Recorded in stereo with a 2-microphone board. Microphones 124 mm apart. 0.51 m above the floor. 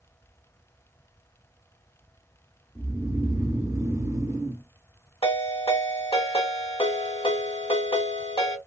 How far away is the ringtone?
About 1.3 m.